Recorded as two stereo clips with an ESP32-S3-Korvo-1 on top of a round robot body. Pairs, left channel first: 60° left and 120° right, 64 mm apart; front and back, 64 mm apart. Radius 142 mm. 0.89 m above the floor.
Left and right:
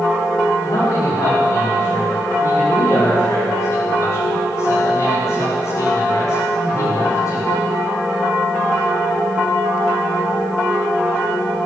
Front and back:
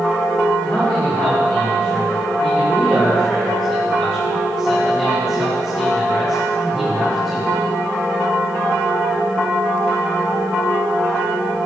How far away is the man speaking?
About 5 m.